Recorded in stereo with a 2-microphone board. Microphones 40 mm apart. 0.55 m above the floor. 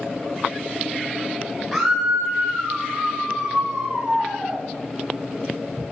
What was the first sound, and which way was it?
A scream, 5° right (ahead or behind).